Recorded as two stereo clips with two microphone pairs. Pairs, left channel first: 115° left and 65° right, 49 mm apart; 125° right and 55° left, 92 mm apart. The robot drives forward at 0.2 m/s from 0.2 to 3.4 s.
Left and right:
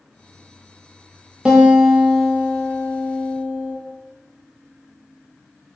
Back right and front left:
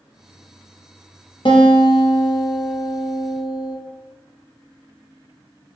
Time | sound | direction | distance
1.4 | a guitar | 135° right | 0.7 m